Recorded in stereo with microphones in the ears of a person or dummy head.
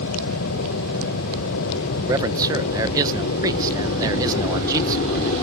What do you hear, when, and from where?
0.0 s an aircraft: 75° left (ahead or behind); by 5.4 s 50° left (ahead or behind)
2.1 s a man speaking: 20° right (ahead or behind)